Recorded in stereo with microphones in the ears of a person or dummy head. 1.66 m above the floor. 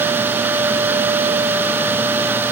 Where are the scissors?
No scissors in this recording.